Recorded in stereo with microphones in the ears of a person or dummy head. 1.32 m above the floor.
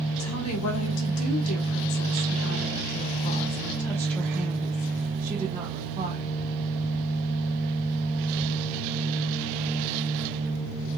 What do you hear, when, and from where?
0.2 s a woman speaking: 90° left, 2.0 m; by 6.4 s 30° right (ahead or behind), 1.8 m